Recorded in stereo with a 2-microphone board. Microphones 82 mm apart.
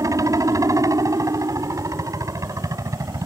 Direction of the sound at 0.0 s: 40° right (ahead or behind).